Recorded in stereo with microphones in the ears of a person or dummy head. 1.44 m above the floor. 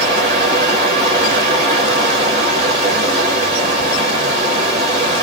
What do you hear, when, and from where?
0.0 s running water: 30° right (ahead or behind), 1.0 m